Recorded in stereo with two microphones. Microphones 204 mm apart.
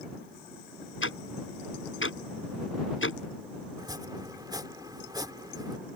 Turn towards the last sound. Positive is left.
turn(degrees=-20)  # may be behind; listen again after turning